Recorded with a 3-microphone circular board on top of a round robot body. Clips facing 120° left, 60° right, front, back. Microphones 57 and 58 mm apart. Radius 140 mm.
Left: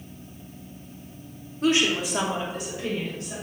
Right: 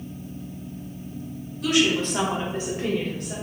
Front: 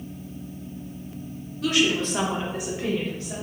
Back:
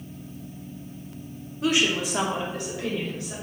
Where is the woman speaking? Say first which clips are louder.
Right 1 dB, front 1 dB; 135° left, 0.9 m; by 3.3 s 50° right, 1.3 m.